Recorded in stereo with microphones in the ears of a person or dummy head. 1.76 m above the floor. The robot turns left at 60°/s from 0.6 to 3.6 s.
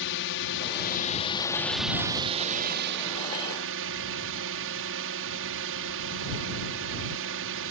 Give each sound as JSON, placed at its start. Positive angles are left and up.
{"t": 0.0, "sound": "a drone", "azimuth_deg": 70}